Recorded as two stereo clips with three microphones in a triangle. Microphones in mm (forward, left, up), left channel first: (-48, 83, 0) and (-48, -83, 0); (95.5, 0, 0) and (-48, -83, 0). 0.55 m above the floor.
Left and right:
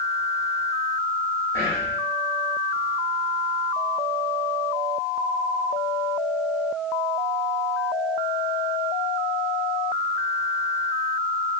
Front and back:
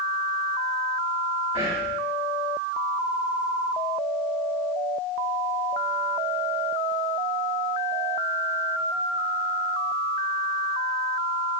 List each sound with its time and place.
1.5 s whispering: 155° left, 1.6 m